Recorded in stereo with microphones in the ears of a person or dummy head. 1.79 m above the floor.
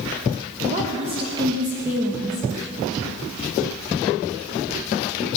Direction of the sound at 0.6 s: 45° right (ahead or behind).